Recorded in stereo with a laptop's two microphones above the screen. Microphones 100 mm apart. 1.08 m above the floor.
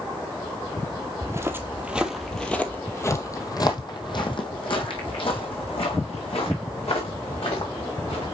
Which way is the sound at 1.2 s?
30° right (ahead or behind).